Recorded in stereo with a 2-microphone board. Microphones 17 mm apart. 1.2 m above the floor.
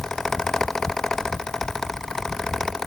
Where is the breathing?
No breathing in this recording.